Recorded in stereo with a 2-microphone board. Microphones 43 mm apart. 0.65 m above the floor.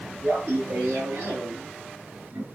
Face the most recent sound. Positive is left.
turn(degrees=-65)  # may be behind; listen again after turning